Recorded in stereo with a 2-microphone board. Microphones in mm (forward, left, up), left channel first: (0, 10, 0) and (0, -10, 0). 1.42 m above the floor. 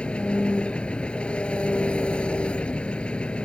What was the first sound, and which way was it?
An engine running, 70° left (ahead or behind).